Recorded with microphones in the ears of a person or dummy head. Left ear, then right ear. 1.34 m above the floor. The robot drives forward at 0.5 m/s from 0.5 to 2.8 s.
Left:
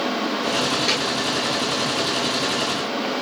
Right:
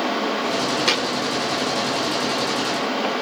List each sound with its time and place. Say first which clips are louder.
0.9 s a thud: right 1 dB; 60° right (ahead or behind), 1.6 m